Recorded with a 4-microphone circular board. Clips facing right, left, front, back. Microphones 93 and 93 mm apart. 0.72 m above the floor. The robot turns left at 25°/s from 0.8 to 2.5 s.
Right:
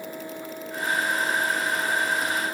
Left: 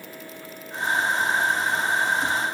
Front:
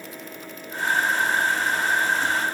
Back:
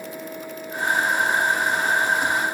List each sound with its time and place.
Only background noise.